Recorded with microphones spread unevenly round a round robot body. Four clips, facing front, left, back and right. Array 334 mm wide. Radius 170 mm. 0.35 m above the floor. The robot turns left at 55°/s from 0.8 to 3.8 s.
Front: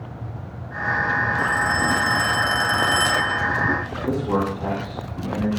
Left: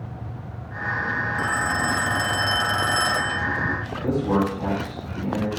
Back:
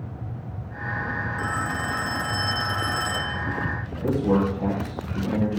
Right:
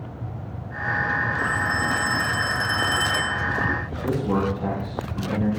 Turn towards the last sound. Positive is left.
turn(degrees=180)